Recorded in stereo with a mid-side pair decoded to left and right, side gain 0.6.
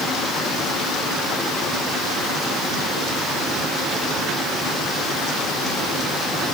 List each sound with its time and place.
Only background noise.